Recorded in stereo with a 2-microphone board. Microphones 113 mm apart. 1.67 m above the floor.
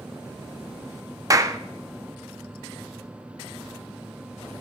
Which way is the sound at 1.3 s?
30° right (ahead or behind).